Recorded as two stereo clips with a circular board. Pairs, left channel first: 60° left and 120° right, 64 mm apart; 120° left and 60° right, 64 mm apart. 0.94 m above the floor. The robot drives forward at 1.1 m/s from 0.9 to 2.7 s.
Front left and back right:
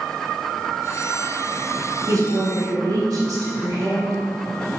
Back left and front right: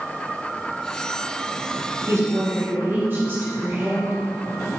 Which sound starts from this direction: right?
A woman speaking, at 2.1 s.